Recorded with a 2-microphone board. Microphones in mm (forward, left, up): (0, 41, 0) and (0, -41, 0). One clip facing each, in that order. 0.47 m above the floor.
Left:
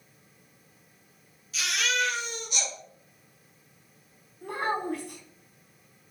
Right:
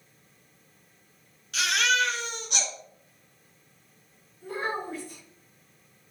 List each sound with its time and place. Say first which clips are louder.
1.5 s a baby crying: right 4 dB; 70° right (ahead or behind), 2.5 m
4.4 s a child speaking: left 2 dB; 65° left (ahead or behind), 3.5 m